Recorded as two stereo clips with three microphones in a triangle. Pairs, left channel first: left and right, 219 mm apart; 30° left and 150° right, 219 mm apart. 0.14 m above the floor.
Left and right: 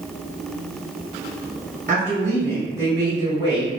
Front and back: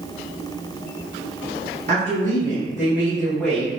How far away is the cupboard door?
I don't hear a cupboard door.